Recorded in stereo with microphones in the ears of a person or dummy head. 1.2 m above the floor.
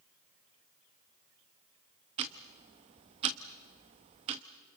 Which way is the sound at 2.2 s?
25° right (ahead or behind).